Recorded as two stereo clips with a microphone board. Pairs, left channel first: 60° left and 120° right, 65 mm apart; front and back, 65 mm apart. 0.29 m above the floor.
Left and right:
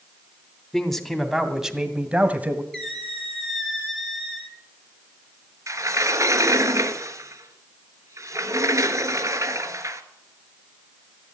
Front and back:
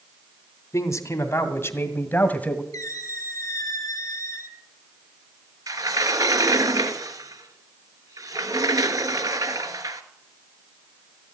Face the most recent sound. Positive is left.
turn(degrees=-160)